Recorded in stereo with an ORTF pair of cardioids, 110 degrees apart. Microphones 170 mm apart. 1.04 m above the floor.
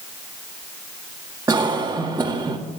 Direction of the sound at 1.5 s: 20° right.